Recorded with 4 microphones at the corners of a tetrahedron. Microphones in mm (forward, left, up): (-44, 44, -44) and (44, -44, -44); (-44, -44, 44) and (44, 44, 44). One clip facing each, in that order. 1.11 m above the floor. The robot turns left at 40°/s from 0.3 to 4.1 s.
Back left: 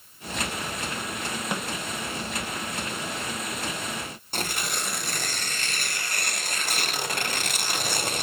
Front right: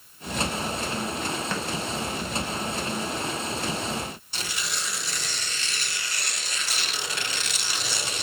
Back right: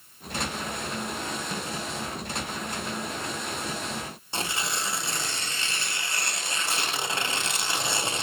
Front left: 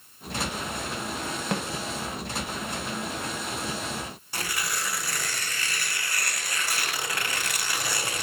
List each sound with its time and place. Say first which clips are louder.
1.5 s a snare drum: even, front left 5 dB; 60° left, 0.6 m; by 1.7 s 55° left, 0.6 m
4.3 s tearing paper: back left 8 dB, back right 2 dB; 160° left, 0.6 m